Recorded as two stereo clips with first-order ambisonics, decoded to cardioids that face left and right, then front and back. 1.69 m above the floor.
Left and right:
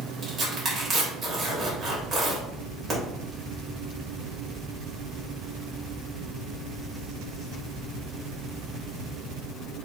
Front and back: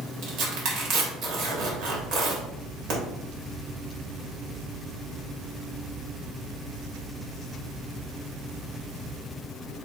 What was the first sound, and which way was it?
Tearing paper, 155° right.